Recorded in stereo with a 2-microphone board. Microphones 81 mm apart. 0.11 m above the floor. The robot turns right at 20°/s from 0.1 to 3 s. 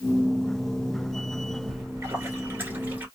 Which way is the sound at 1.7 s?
30° right (ahead or behind).